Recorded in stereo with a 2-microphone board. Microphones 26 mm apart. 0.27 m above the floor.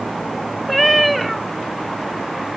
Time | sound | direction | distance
0.7 | a cat meowing | centre (ahead or behind) | 0.8 m